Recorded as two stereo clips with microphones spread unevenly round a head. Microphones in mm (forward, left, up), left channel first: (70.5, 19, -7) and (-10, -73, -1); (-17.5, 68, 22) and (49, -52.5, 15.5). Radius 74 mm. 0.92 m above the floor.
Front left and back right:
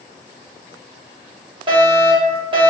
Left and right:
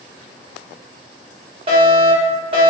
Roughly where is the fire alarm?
Right.